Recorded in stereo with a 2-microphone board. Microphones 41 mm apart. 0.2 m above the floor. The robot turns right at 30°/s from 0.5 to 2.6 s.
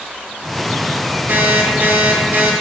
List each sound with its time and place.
1.3 s an alarm clock: 100° right, 4.5 m; by 2.5 s 65° right, 4.5 m